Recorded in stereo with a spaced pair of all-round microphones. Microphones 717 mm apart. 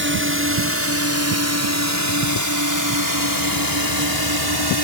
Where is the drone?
15° right (ahead or behind); by 4.8 s 35° right (ahead or behind).